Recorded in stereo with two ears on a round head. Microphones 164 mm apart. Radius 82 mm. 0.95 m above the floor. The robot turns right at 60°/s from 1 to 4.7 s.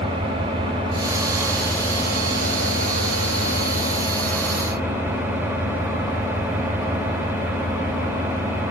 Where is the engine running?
30° right, 2.5 m; by 8.7 s 170° right, 2.5 m.